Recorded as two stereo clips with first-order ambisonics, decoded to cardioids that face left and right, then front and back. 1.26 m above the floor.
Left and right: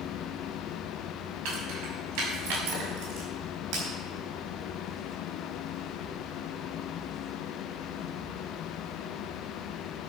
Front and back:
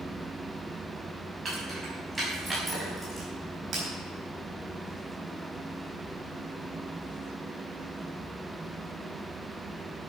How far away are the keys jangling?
About 6 m.